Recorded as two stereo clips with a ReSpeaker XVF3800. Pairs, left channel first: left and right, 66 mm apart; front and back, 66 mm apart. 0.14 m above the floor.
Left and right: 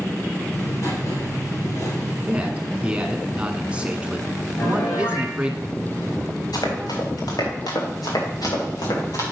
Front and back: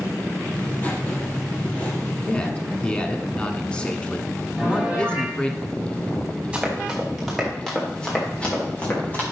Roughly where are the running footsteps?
Left.